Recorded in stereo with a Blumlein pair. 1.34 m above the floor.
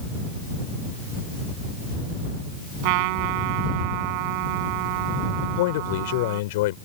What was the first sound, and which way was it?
A trumpet, 45° right.